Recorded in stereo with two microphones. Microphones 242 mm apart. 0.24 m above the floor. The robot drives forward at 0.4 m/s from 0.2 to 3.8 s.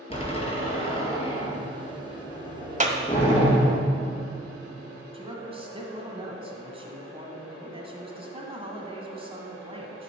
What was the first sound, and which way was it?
A door slam, 20° left (ahead or behind).